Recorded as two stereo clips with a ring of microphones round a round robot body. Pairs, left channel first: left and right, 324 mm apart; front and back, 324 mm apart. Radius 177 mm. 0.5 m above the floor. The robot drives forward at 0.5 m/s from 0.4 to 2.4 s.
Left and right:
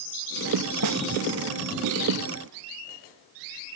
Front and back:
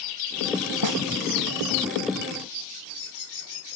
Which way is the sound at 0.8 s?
135° right.